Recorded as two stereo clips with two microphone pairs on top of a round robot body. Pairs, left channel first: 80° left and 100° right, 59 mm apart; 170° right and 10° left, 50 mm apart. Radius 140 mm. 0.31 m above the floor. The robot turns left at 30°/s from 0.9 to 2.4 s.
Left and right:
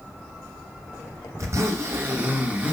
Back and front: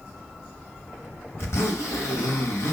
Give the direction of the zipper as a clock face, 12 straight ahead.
4 o'clock.